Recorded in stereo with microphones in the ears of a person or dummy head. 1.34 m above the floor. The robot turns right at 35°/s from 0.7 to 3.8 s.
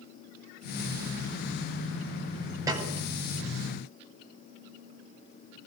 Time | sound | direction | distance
2.7 | a snare drum | 5° right (ahead or behind) | 8 m